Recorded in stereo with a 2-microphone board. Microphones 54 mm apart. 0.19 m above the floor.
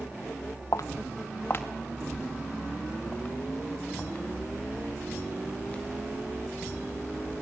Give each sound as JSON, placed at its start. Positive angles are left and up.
{"t": 0.7, "sound": "footsteps", "side_deg": 70, "distance_m": 0.8}